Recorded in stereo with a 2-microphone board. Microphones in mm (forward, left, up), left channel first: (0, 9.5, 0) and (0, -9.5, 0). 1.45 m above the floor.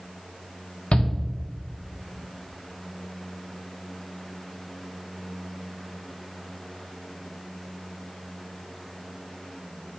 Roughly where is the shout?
Left.